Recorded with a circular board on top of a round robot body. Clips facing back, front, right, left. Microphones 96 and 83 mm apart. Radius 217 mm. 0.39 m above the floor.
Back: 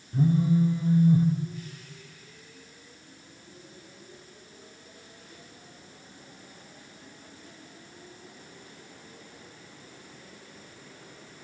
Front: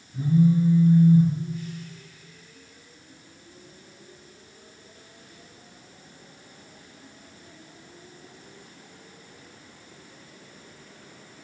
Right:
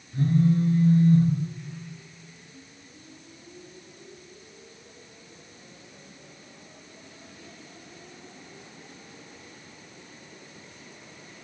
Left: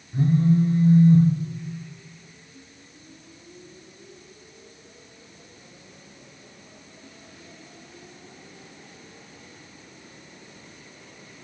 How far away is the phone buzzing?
About 0.8 m.